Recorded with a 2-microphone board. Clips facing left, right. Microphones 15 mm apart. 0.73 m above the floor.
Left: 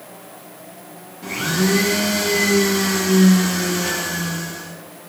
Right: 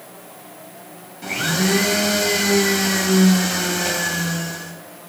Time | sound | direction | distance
1.2 | a blender | 80° right | 2.5 m